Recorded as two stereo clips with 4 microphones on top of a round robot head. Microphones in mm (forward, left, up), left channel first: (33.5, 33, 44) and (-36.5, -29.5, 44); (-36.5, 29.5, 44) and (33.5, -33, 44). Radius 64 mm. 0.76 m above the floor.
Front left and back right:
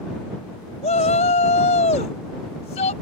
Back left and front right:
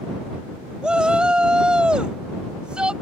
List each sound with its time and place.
0.8 s a shout: 40° left